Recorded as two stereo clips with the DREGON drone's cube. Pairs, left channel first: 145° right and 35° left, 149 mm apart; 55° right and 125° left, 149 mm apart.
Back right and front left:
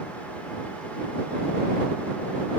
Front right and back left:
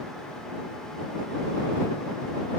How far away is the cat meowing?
I don't hear a cat meowing.